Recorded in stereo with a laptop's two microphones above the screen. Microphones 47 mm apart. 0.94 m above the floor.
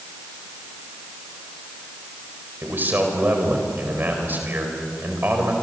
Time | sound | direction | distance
2.6 | a man speaking | 40° right (ahead or behind) | 4.5 m